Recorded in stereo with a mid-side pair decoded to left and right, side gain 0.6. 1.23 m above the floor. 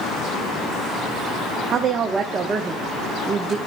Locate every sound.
1.7 s a woman speaking: 35° right, 1.1 m